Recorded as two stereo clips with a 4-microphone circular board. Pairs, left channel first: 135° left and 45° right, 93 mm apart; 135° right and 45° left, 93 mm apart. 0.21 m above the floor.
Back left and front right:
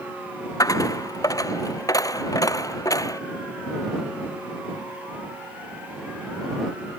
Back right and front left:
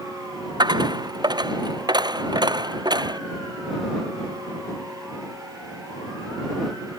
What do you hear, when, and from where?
0.6 s a dropped coin: 85° left